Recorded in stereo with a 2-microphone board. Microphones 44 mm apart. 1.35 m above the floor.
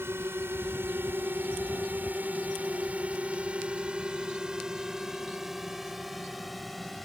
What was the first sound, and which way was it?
A drone, 70° right (ahead or behind).